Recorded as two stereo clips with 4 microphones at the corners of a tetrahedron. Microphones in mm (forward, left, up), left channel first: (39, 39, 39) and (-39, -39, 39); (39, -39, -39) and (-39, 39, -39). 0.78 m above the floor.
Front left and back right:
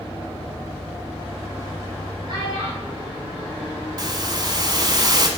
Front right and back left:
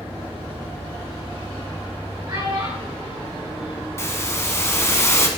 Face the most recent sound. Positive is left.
turn(degrees=-100)